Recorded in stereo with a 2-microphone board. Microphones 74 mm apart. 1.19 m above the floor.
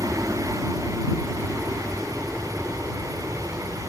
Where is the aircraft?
15° right (ahead or behind); by 3.9 s 10° right (ahead or behind).